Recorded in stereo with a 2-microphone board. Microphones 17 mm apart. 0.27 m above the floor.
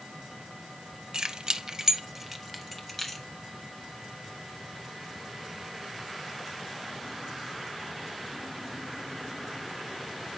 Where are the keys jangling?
45° right (ahead or behind), 1.0 m; by 3.2 s 5° left (ahead or behind), 1.9 m.